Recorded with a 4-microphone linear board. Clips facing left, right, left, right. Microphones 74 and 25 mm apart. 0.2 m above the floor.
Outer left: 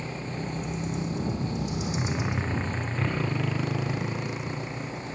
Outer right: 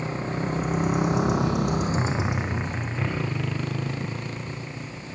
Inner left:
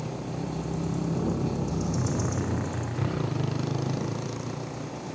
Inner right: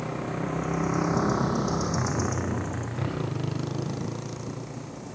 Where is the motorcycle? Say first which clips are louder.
Outer right 6 dB, inner right 3 dB; 40° right (ahead or behind); by 5.2 s 10° left (ahead or behind).